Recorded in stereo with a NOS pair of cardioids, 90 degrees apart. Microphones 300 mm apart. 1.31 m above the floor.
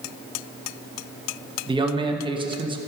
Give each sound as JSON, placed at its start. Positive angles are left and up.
{"t": 1.7, "sound": "a man speaking", "azimuth_deg": -15, "distance_m": 1.4}